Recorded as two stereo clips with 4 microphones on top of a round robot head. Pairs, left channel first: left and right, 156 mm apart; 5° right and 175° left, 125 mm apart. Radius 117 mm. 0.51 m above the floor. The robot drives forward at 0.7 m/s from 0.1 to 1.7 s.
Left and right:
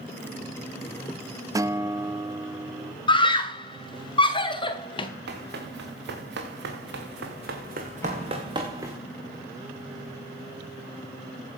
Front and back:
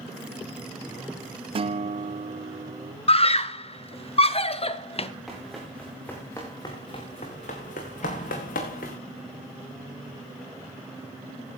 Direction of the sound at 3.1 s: 30° left.